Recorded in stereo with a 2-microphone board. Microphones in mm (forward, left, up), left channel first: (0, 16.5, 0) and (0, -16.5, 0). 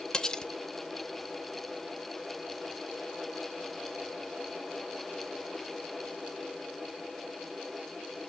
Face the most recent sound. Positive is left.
turn(degrees=20)  # may be behind; listen again after turning